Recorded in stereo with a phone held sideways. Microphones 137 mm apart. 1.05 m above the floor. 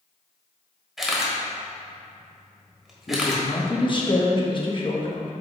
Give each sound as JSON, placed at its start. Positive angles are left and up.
{"t": 1.0, "sound": "a camera shutter", "side_deg": 0, "distance_m": 1.4}
{"t": 3.1, "sound": "a man speaking", "side_deg": 35, "distance_m": 1.3}